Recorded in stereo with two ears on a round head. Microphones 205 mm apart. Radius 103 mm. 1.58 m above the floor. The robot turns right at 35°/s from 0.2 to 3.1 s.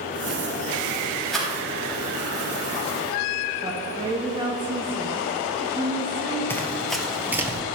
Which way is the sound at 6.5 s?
10° left (ahead or behind).